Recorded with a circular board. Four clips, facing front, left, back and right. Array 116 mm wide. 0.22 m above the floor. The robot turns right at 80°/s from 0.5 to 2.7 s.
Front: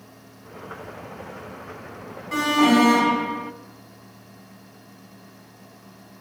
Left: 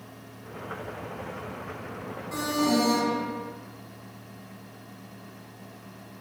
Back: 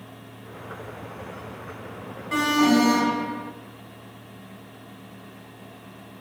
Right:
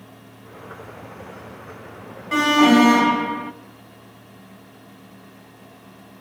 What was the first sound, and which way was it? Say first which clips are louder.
An alarm: right 11 dB, front 2 dB; 100° right.